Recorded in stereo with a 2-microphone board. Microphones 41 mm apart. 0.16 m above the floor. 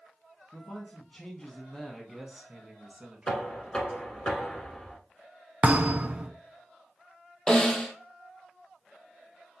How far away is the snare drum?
About 1.1 m.